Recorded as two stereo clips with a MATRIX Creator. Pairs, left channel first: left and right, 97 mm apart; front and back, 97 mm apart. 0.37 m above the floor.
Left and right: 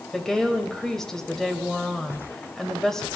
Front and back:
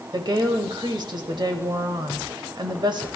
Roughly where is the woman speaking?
Behind.